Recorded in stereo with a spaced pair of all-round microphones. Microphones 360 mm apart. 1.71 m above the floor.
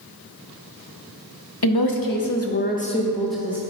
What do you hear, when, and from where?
1.6 s a woman speaking: 80° left, 0.9 m; by 3.6 s 5° right (ahead or behind), 1.2 m